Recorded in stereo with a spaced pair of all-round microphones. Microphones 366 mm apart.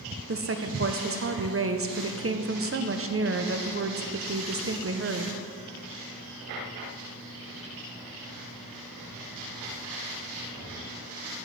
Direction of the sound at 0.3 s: 40° right (ahead or behind).